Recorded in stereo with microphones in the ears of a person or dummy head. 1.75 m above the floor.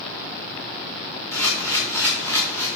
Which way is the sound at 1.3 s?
15° left (ahead or behind).